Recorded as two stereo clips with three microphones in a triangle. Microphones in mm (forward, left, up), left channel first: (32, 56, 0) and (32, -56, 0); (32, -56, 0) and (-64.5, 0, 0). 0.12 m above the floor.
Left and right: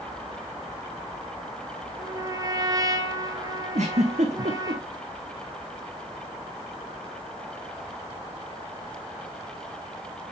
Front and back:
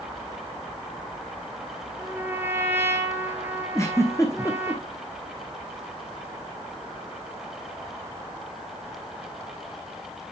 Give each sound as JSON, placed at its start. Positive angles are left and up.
{"t": 2.0, "sound": "a trumpet", "azimuth_deg": -140, "distance_m": 1.5}
{"t": 3.8, "sound": "a giggle", "azimuth_deg": -95, "distance_m": 1.3}